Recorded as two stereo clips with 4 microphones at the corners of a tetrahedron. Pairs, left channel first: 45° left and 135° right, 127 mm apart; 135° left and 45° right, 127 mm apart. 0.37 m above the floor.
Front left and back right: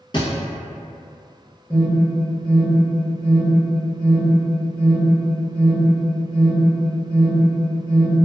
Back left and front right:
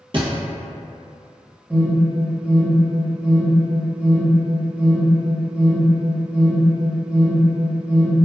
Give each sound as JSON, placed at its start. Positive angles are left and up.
{"t": 0.1, "sound": "a thud", "azimuth_deg": 0, "distance_m": 0.7}
{"t": 1.7, "sound": "an alarm", "azimuth_deg": 10, "distance_m": 1.2}